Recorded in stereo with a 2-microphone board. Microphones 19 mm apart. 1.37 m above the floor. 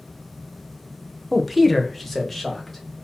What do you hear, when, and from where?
1.3 s a man speaking: 5° right (ahead or behind), 0.6 m; by 3.0 s 15° left (ahead or behind), 1.4 m